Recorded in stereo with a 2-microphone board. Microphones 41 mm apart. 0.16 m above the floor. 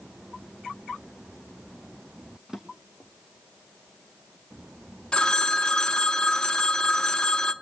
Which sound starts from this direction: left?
A phone ringing, at 5.1 s.